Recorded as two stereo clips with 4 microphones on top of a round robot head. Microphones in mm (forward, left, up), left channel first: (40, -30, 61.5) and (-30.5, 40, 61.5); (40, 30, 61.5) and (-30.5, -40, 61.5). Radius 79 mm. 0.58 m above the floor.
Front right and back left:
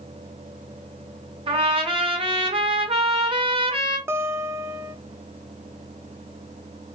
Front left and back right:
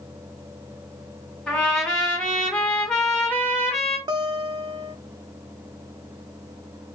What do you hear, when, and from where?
1.5 s a trumpet: 125° left, 1.7 m
4.1 s a guitar: 165° right, 0.9 m